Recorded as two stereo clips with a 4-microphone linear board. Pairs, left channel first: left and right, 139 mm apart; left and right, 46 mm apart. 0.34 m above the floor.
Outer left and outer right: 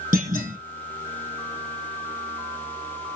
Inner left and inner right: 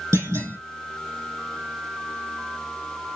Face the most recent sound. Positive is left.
turn(degrees=-85)